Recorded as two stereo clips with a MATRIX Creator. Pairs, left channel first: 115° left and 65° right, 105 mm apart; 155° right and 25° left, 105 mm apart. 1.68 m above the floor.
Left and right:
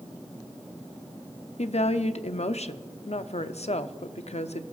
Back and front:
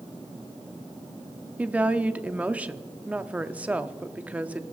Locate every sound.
1.6 s a woman speaking: 100° left, 0.5 m